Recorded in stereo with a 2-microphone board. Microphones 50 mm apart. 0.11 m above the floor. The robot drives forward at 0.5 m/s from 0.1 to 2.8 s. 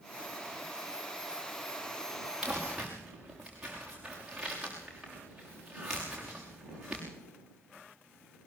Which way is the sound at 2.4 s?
10° right (ahead or behind).